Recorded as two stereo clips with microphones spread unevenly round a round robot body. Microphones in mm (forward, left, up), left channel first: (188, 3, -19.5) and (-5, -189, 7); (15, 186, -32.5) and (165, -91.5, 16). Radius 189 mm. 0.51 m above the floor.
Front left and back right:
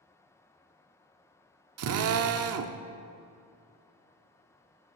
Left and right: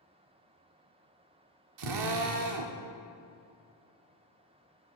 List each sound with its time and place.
1.8 s a drill: 100° right, 0.5 m